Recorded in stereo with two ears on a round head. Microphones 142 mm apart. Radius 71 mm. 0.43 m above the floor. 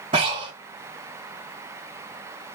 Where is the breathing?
35° right (ahead or behind), 1.9 m.